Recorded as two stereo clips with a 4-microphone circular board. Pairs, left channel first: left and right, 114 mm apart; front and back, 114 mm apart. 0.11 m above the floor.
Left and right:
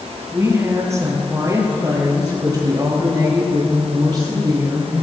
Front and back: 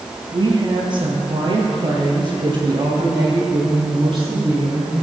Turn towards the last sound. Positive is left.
turn(degrees=-135)